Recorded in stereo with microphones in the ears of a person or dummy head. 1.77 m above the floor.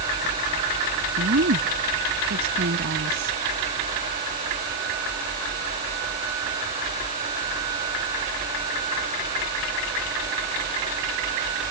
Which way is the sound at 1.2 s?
55° right (ahead or behind).